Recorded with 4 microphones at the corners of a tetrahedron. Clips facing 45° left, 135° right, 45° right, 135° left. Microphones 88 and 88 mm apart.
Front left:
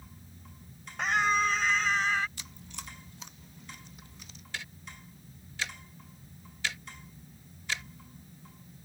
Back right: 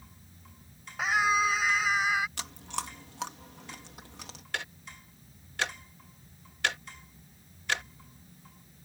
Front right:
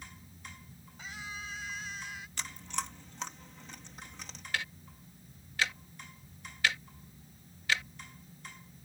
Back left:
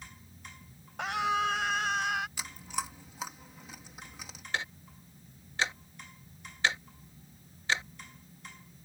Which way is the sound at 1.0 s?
140° left.